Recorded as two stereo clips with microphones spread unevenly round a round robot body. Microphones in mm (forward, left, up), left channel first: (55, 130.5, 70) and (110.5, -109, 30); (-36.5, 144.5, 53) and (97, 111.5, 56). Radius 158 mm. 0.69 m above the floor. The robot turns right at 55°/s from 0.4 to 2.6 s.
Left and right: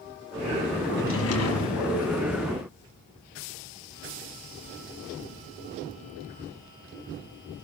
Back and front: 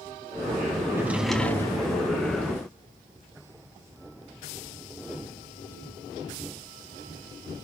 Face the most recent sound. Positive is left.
turn(degrees=150)